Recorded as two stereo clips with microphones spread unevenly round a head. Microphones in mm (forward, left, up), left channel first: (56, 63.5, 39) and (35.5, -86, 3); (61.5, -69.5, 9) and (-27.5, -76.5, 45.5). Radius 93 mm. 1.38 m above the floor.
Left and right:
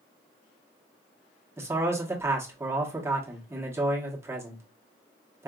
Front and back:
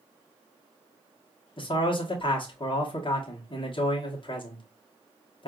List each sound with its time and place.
1.6 s a man speaking: 25° right, 1.1 m